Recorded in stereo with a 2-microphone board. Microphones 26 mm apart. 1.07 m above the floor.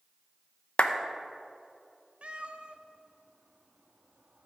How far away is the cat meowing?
About 0.7 m.